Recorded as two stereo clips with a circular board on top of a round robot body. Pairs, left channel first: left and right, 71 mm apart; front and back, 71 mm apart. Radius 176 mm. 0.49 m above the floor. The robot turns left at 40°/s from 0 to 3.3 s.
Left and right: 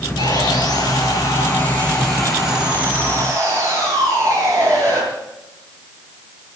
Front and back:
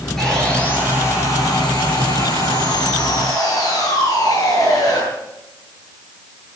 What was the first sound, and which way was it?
Sawing, 85° left.